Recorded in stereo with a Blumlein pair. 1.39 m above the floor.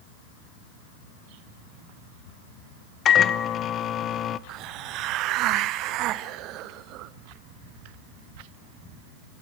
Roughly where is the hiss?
Ahead right.